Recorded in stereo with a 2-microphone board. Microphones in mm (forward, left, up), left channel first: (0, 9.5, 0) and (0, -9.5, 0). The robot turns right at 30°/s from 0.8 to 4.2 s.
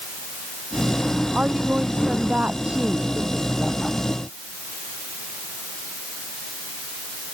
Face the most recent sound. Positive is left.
turn(degrees=-15)